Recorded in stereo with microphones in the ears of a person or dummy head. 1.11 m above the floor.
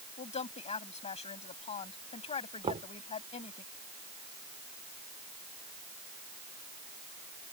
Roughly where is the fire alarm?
I don't hear a fire alarm.